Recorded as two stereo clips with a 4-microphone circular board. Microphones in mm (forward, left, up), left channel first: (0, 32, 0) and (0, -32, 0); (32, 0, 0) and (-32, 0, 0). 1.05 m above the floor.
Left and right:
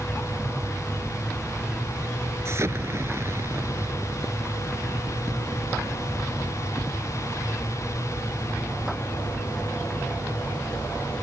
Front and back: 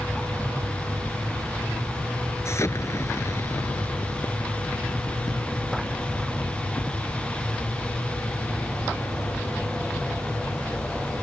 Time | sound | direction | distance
2.5 | an explosion | 45° right | ?